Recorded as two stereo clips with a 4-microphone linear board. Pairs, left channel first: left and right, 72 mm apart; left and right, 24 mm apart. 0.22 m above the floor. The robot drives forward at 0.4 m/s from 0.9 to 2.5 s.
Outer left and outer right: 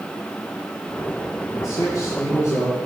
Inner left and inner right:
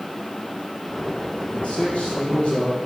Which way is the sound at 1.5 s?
45° left (ahead or behind).